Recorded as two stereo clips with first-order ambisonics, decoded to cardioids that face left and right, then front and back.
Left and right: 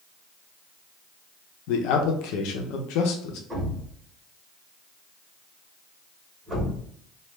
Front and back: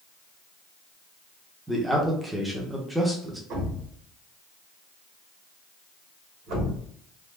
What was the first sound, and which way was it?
A man speaking, 95° left.